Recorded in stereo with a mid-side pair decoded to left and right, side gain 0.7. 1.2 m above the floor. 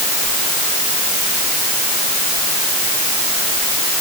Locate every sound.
Only background noise.